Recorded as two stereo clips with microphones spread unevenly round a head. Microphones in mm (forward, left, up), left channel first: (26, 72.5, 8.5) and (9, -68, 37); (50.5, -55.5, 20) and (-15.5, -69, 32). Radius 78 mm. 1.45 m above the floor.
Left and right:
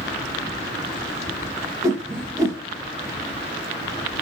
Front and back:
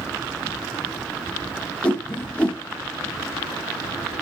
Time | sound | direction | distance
1.8 | a whoosh | 65° right | 0.8 m